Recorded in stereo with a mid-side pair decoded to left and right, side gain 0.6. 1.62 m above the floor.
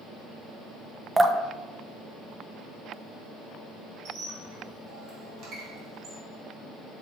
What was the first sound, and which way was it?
Dripping, 20° right.